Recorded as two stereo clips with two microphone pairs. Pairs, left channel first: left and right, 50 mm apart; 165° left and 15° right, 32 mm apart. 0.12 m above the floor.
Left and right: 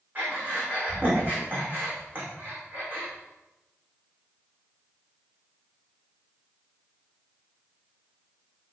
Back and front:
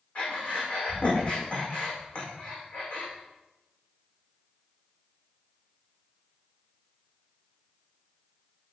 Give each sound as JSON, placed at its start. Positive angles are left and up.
{"t": 0.1, "sound": "breathing", "azimuth_deg": -145, "distance_m": 6.0}